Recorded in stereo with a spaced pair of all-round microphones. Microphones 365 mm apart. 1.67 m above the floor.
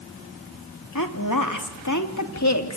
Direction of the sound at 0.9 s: 65° left (ahead or behind).